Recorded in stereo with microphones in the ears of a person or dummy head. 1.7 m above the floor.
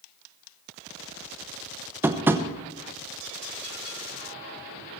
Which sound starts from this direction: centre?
Tapping, at 2.0 s.